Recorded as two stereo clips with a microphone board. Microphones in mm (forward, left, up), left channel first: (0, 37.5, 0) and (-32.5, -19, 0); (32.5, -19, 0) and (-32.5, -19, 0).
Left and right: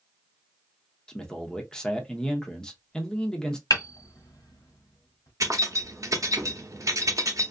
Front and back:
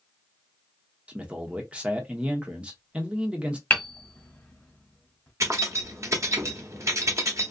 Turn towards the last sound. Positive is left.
turn(degrees=-145)